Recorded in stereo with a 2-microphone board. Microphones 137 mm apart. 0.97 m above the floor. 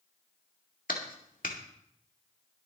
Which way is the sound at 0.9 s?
80° left.